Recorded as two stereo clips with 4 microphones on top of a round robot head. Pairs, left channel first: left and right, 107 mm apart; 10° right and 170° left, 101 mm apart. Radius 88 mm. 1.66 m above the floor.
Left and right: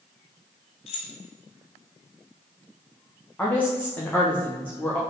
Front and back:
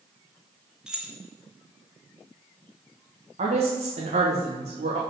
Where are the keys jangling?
90° left, 1.2 m.